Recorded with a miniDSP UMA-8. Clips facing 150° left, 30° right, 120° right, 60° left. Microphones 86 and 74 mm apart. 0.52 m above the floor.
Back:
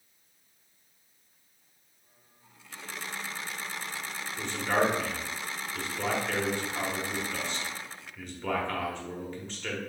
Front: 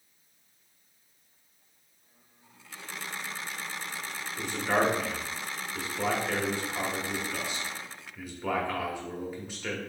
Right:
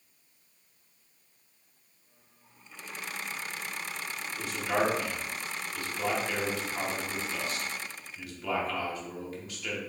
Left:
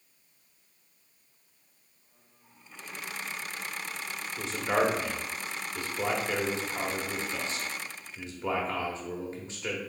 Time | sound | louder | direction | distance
4.4 | a man speaking | even, left 2 dB | 40° left | 0.8 m